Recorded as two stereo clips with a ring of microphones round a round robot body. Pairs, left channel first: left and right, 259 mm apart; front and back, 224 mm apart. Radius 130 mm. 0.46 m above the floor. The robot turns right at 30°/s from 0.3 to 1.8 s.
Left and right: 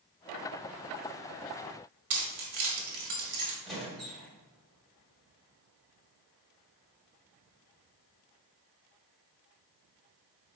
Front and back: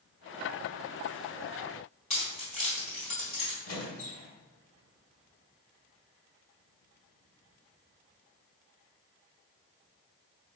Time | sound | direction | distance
2.1 | keys jangling | 60° right | 1.4 m
3.6 | a squeak | straight ahead | 1.3 m